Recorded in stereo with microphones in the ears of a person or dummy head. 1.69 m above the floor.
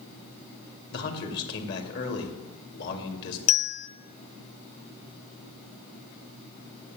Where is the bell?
45° left (ahead or behind), 0.5 m.